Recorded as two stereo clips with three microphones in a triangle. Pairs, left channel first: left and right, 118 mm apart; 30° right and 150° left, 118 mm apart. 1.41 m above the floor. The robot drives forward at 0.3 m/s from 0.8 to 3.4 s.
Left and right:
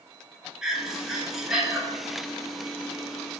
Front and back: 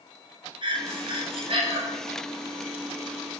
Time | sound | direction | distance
0.6 | breathing | 175° right | 0.8 m